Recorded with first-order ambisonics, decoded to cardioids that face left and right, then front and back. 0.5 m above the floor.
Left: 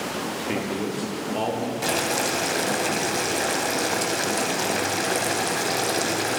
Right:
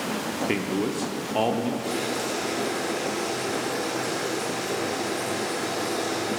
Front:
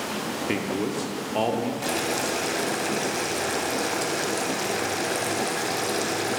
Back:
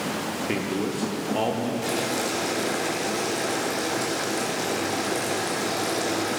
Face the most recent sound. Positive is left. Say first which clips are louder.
# left 4 dB, even
turn(degrees=75)